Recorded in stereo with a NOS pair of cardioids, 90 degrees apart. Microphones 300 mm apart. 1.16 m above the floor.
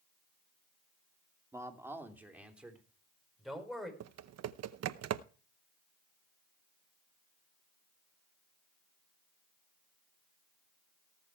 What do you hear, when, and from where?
1.5 s a man speaking: 10° right, 2.5 m; by 3.9 s straight ahead, 4 m
4.0 s typing on a keyboard: 60° right, 0.8 m